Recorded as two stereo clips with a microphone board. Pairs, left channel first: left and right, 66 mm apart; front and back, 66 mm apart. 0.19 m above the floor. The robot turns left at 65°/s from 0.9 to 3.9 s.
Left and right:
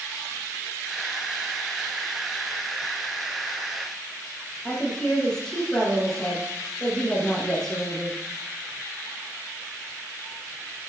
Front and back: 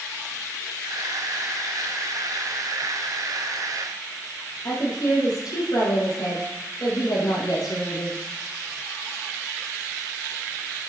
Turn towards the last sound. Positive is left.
turn(degrees=10)